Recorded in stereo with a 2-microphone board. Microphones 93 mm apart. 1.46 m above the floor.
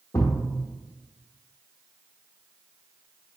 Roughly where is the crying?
I don't hear crying.